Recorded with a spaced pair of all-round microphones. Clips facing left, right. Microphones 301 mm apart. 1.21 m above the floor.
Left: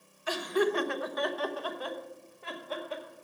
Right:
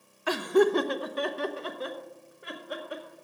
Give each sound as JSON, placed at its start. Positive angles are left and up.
{"t": 0.3, "sound": "laughter", "side_deg": -70, "distance_m": 0.6}